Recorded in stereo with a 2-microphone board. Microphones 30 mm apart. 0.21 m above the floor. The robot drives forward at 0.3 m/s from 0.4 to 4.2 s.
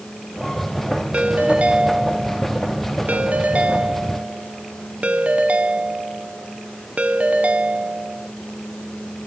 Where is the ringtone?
45° right (ahead or behind), 1.3 m; by 8.3 s 50° right (ahead or behind), 1.2 m.